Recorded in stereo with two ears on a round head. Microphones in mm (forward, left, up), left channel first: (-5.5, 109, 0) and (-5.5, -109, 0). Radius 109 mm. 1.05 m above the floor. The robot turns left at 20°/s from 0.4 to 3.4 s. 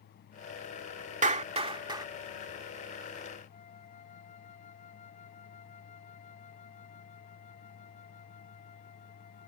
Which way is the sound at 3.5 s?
30° left (ahead or behind).